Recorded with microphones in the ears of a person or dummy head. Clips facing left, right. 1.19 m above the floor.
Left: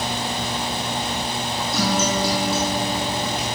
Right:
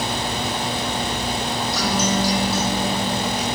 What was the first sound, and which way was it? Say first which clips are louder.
A guitar: left 1 dB; 20° left (ahead or behind).